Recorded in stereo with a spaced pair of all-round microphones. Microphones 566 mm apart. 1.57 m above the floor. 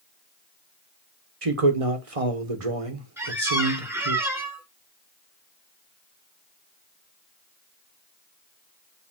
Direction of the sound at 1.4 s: 70° right (ahead or behind).